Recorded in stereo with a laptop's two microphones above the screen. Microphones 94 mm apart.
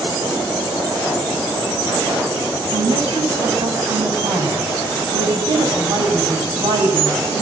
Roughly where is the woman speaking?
Right.